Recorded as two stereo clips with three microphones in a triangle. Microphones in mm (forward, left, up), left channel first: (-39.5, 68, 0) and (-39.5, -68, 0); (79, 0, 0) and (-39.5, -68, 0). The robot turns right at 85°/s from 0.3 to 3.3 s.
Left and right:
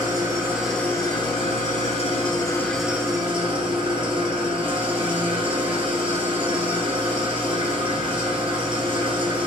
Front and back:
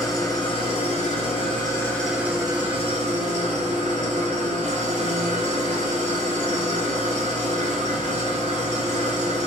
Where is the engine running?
30° right, 1.1 m; by 9.5 s 135° right, 1.1 m.